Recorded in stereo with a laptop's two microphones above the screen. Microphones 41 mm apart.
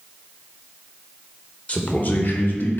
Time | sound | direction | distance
1.7 | a man speaking | 35° left (ahead or behind) | 1.1 m